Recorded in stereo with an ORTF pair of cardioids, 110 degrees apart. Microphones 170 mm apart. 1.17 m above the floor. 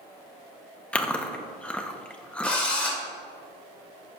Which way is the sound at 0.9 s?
5° left.